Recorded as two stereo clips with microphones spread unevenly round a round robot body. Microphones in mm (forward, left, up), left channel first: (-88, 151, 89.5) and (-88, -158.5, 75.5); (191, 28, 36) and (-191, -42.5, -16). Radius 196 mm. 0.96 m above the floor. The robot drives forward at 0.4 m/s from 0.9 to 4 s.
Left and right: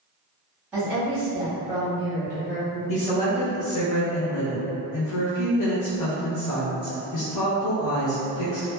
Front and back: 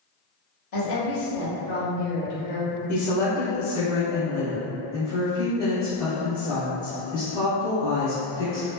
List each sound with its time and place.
0.7 s a woman speaking: 5° right, 1.3 m; by 2.8 s 20° right, 0.7 m
2.9 s a woman speaking: 85° left, 0.8 m; by 8.7 s 115° left, 0.8 m